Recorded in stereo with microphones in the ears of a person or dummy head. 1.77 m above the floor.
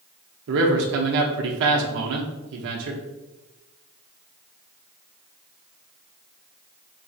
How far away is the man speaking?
About 0.7 m.